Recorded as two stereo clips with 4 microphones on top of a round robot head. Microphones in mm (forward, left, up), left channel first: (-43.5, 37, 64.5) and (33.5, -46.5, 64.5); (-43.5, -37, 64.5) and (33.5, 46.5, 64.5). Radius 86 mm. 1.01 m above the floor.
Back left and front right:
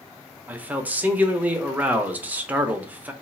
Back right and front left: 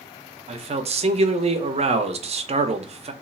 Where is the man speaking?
30° left, 0.6 m.